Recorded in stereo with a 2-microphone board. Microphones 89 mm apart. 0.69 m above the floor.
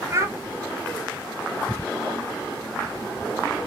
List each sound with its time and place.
0.1 s a child speaking: 30° right (ahead or behind), 0.5 m